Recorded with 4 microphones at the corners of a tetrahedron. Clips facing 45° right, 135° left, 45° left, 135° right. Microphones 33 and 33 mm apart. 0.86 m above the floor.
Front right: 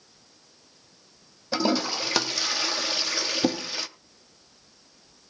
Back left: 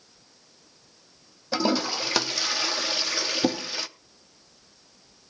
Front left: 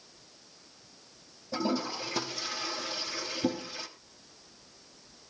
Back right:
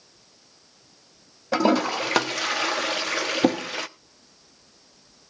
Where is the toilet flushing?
140° right, 0.7 m.